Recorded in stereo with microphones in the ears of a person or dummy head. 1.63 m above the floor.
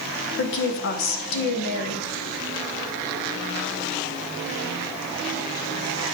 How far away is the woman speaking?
About 1.0 m.